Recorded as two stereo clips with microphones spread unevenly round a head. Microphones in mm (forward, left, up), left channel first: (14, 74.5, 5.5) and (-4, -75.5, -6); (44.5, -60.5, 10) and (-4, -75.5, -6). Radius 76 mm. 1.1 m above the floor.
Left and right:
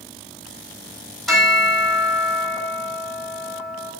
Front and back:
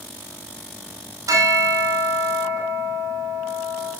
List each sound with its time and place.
1.3 s a bell: 170° left, 5 m